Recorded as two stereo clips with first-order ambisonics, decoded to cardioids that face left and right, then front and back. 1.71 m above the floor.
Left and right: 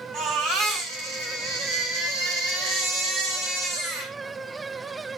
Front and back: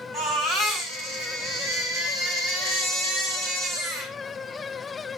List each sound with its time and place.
0.1 s a baby crying: 125° right, 6.5 m